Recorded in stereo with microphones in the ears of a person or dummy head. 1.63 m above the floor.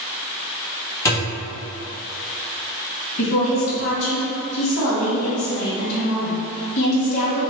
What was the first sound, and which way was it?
A thud, 20° left (ahead or behind).